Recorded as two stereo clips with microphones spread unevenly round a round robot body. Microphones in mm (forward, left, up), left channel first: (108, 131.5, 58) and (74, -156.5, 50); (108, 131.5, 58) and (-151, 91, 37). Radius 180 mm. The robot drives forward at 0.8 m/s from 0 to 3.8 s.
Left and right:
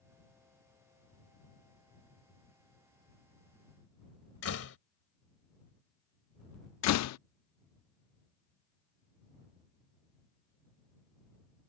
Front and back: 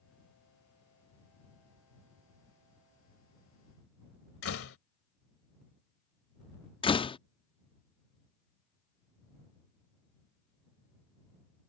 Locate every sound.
4.4 s a door slam: 45° left
6.8 s a door slam: 80° left